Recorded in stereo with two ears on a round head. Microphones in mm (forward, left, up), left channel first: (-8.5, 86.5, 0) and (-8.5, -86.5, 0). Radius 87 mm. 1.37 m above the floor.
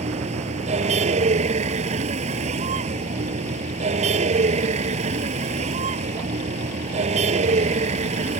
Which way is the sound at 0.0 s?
40° right (ahead or behind).